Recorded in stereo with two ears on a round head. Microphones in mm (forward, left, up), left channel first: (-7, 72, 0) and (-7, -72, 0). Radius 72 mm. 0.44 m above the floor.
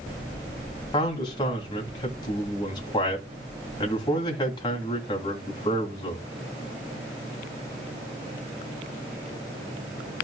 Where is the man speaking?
30° left (ahead or behind), 2.5 m.